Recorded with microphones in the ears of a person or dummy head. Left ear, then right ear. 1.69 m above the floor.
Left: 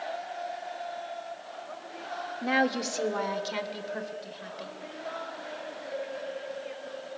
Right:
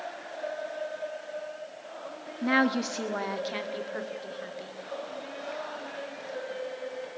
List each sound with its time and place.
2.4 s a woman speaking: 5° right (ahead or behind), 0.8 m